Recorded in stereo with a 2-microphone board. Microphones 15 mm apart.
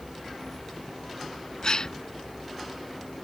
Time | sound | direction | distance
1.6 | a gasp | 45° left (ahead or behind) | ?